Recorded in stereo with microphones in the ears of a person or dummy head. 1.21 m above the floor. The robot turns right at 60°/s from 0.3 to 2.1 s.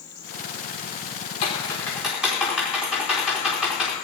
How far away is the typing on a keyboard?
About 4 m.